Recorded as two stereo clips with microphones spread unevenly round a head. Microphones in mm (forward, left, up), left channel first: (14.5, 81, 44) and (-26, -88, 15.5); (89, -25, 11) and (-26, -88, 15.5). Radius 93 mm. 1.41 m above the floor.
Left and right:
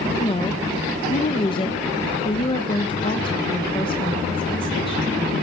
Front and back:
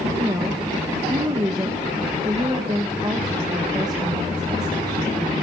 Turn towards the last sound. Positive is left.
turn(degrees=135)